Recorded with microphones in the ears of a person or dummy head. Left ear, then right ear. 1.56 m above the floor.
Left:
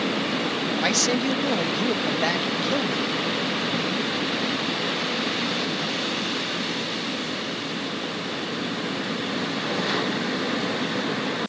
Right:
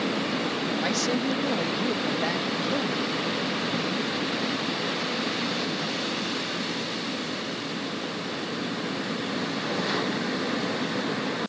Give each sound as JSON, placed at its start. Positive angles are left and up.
{"t": 0.8, "sound": "a man speaking", "side_deg": 15}